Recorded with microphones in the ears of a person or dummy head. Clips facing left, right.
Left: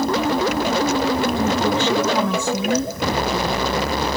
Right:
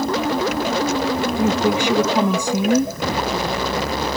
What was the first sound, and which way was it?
A woman speaking, 10° right (ahead or behind).